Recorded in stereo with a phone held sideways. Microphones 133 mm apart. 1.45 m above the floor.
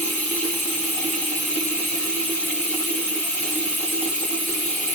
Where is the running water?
10° left (ahead or behind), 1.5 m.